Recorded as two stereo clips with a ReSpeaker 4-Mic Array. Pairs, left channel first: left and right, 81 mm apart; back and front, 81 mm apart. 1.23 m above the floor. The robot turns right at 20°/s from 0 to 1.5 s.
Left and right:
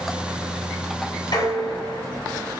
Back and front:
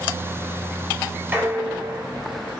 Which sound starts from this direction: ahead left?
Dishes clattering, at 1.3 s.